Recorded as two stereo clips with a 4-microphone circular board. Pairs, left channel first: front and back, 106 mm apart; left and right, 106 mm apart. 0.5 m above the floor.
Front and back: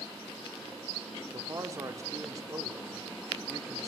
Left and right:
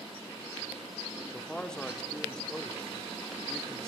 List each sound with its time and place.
1.3 s a man speaking: 165° left, 1.2 m